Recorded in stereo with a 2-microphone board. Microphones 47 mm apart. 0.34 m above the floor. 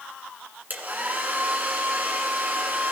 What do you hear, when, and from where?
0.7 s a hair dryer: 40° right (ahead or behind), 1.9 m